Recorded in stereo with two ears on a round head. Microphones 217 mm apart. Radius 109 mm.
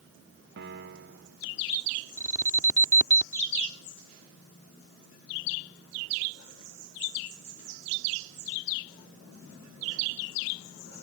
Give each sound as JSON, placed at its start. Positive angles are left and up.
{"t": 0.6, "sound": "a piano", "side_deg": -45}
{"t": 2.2, "sound": "an alarm", "side_deg": -15}